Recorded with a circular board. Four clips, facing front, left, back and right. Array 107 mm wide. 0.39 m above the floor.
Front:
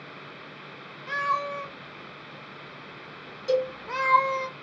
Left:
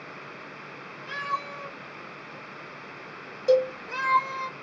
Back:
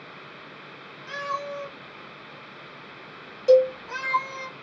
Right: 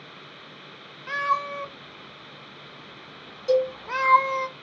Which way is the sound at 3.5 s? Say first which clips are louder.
Left 1 dB, back 9 dB; 150° left.